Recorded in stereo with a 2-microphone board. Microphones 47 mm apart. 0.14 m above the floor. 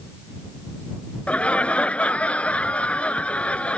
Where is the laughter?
30° left (ahead or behind).